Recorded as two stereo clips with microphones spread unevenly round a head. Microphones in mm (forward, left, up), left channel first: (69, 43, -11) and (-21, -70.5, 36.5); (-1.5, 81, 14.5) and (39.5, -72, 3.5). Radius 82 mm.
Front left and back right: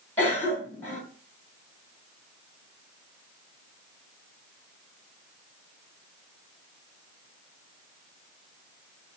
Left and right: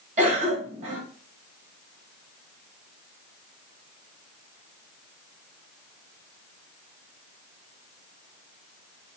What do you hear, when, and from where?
0.2 s a cough: 30° right, 2 m